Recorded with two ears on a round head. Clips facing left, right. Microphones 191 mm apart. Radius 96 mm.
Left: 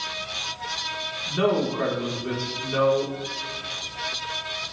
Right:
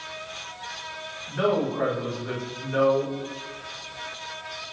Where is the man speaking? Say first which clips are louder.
Left 1 dB; 55° left (ahead or behind), 5.5 m.